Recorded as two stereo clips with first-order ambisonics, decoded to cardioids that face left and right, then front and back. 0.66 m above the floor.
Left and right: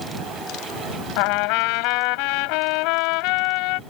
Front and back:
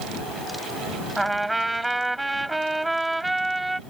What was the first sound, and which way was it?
A trumpet, 100° left.